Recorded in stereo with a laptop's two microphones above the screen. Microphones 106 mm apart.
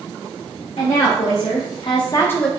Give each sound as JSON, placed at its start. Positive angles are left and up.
{"t": 0.8, "sound": "a woman speaking", "side_deg": 85, "distance_m": 1.4}